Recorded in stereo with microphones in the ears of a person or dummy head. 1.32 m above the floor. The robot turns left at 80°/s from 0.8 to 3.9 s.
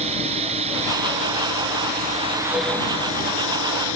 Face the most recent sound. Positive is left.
turn(degrees=75)